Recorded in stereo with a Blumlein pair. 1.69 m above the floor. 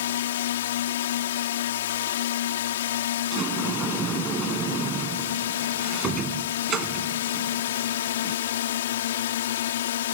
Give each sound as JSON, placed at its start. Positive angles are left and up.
{"t": 0.0, "sound": "a drone", "azimuth_deg": 60}
{"t": 3.3, "sound": "a sliding door", "azimuth_deg": -20}